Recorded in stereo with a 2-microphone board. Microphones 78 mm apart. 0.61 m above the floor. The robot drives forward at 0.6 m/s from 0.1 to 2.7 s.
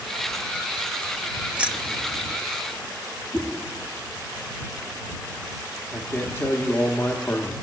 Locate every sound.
1.5 s keys jangling: 15° right (ahead or behind), 0.6 m
3.3 s a whoosh: 30° left (ahead or behind), 7 m
5.9 s a man speaking: 30° left (ahead or behind), 1.2 m